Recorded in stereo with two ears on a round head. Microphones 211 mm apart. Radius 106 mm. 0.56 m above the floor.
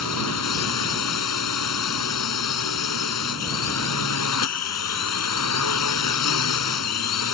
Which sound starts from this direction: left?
A drone, at 0.0 s.